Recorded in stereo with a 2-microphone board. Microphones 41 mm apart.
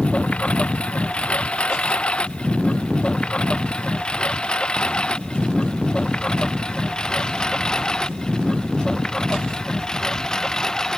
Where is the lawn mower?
30° left (ahead or behind); by 11.0 s 15° left (ahead or behind).